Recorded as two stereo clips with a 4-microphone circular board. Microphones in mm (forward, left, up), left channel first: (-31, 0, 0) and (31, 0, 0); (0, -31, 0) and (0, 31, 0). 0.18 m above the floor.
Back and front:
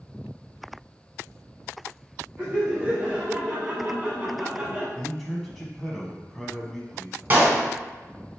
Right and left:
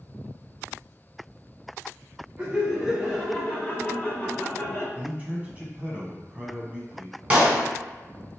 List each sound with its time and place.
2.4 s laughter: 50° left, 1.4 m; by 4.8 s 65° right, 1.8 m
5.0 s a man speaking: 95° left, 1.1 m
7.3 s a clap: 35° left, 1.4 m